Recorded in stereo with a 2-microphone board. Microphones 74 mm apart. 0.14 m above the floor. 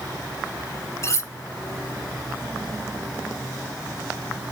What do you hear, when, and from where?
1.0 s cutlery clinking: 35° left (ahead or behind), 0.9 m